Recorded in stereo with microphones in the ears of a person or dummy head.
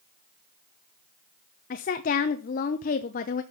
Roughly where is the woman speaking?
Left.